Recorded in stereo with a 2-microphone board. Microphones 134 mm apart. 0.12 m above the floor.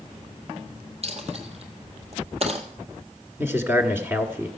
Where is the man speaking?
15° right (ahead or behind), 1.1 m.